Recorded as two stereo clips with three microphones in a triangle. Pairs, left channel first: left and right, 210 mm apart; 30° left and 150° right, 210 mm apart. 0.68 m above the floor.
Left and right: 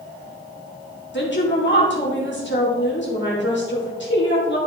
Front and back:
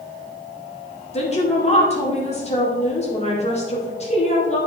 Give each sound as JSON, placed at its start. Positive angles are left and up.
{"t": 1.1, "sound": "a woman speaking", "azimuth_deg": 85, "distance_m": 2.0}